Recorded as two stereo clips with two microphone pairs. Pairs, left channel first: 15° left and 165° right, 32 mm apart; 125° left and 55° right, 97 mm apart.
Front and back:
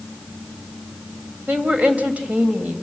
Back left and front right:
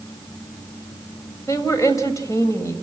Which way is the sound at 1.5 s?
175° left.